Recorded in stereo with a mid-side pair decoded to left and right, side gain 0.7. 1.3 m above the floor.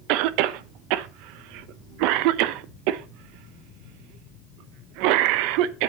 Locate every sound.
0.1 s a cough: 70° right, 0.9 m